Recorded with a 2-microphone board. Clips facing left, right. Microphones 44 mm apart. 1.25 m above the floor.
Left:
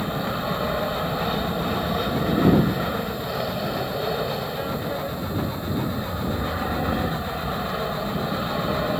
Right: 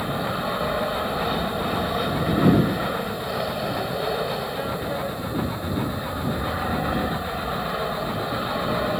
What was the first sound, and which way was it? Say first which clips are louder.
An aircraft: even; centre (ahead or behind).